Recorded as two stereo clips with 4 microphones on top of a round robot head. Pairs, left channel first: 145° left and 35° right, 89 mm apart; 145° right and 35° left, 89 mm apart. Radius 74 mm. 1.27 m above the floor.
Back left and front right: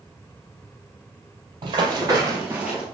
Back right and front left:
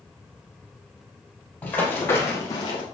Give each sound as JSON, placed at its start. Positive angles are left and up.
{"t": 1.6, "sound": "running footsteps", "azimuth_deg": -75, "distance_m": 2.5}